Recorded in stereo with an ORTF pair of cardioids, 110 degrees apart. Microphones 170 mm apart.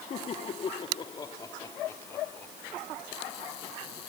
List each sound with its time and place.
0.1 s laughter: 45° left; by 3.5 s 5° left